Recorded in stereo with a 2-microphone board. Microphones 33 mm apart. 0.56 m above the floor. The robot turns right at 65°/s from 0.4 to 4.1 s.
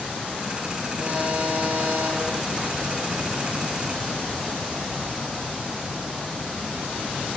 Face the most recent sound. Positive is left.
turn(degrees=45)